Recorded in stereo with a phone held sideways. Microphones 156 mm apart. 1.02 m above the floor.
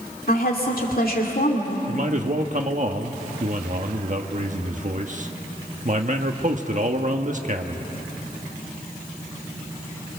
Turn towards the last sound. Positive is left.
turn(degrees=-55)  # may be behind; listen again after turning